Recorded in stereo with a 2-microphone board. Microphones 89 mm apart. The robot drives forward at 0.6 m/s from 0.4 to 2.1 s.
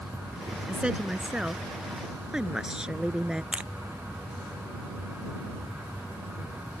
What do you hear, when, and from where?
0.7 s a woman speaking: 10° right (ahead or behind)
3.5 s crushing: 15° right (ahead or behind)